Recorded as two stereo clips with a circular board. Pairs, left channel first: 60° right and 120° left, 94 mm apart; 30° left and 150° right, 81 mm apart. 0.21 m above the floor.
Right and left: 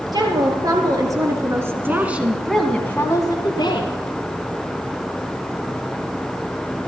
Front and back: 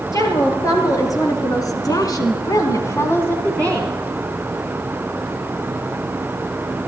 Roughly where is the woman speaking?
Left.